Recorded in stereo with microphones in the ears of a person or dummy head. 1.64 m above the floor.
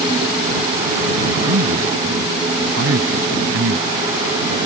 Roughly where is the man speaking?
Right.